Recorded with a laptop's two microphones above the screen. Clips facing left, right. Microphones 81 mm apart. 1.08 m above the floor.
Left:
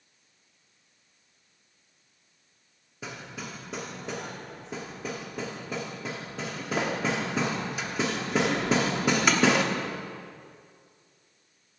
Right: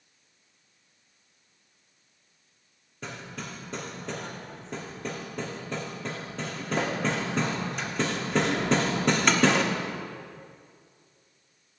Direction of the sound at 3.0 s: 5° left (ahead or behind).